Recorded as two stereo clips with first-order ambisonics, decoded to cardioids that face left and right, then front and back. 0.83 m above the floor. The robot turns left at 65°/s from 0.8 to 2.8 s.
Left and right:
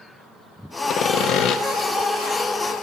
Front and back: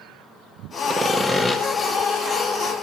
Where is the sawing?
115° left, 1.2 m; by 1.6 s 65° left, 1.2 m.